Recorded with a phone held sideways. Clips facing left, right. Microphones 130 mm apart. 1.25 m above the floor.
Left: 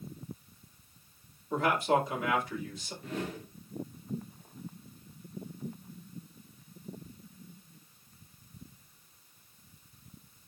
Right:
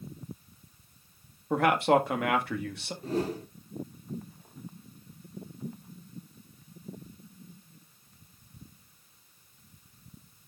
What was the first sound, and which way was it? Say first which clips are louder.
A man speaking: right 4 dB; 60° right (ahead or behind).